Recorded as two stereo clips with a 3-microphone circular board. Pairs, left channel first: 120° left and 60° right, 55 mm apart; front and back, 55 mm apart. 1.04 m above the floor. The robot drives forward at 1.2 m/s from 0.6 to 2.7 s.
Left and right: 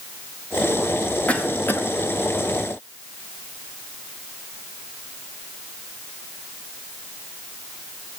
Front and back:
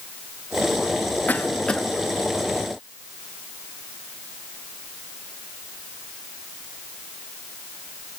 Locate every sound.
1.3 s a cough: 55° left, 1.6 m; by 1.8 s 80° left, 1.4 m